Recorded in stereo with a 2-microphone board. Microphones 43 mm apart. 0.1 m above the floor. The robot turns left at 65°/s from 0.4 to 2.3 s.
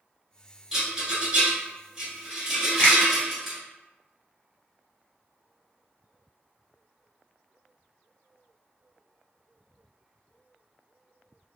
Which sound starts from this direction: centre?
A rattle, at 0.7 s.